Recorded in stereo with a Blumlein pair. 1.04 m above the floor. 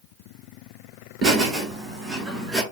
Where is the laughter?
25° right, 3 m; by 2.6 s straight ahead, 3 m.